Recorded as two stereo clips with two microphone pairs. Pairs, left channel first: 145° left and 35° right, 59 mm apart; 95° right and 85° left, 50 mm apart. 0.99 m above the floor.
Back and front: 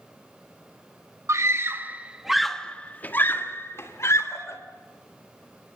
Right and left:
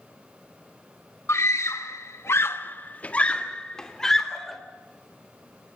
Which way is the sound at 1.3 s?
65° right.